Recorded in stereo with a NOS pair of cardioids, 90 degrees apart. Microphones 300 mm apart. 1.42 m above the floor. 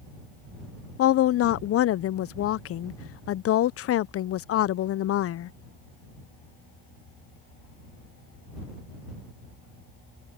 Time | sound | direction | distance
1.0 | a woman speaking | 50° left | ?